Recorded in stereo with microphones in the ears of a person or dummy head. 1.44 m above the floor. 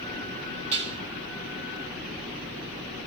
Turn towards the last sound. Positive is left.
turn(degrees=-35)  # may be behind; listen again after turning